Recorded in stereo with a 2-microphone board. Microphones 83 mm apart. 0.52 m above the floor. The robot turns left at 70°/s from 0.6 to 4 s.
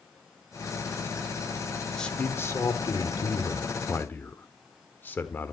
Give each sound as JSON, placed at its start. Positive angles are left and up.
{"t": 2.0, "sound": "a man speaking", "azimuth_deg": 170, "distance_m": 1.3}